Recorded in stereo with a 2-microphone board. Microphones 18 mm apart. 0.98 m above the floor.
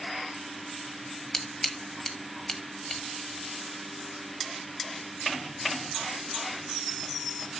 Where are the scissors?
30° left (ahead or behind), 1.4 m.